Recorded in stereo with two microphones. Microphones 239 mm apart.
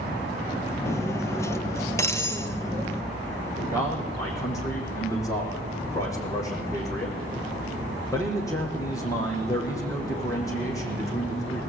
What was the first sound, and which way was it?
Cutlery clinking, 10° left (ahead or behind).